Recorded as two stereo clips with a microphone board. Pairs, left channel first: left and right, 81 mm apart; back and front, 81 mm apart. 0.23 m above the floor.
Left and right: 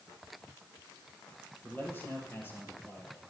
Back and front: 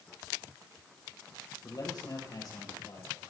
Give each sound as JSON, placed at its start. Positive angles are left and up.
{"t": 1.6, "sound": "a man speaking", "azimuth_deg": 155, "distance_m": 7.0}